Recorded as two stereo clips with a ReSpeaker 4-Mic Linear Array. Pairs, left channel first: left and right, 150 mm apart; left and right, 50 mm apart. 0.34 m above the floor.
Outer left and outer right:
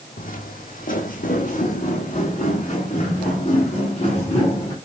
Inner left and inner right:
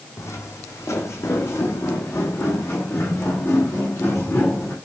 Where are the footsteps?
70° left (ahead or behind), 0.9 m; by 4.8 s 40° left (ahead or behind), 2.5 m.